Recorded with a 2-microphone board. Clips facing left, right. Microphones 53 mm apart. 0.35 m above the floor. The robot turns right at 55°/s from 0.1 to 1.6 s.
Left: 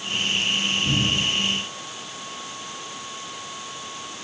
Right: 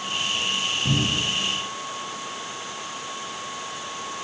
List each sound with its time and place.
0.8 s a cupboard door: 65° right (ahead or behind), 3 m; by 1.2 s 75° right (ahead or behind), 3 m